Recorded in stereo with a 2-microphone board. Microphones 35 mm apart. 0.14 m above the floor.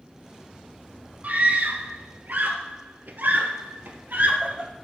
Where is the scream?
45° right (ahead or behind), 2.5 m; by 4.7 s 65° right (ahead or behind), 3 m.